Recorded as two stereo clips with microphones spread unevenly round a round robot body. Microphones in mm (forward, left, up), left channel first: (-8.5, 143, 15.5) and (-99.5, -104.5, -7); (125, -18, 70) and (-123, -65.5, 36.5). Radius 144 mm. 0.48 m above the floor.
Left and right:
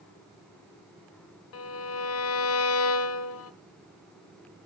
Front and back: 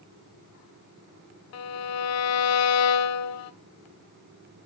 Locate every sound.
1.5 s a violin: 30° left, 1.1 m